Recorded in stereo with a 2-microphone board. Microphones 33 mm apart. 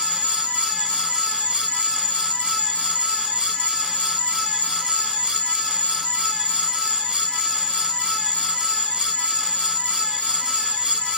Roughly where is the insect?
Left.